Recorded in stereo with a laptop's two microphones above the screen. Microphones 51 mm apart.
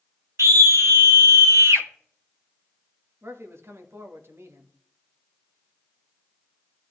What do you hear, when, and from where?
0.4 s a scream: 75° right (ahead or behind), 1.3 m
3.2 s a man speaking: 60° right (ahead or behind), 1.6 m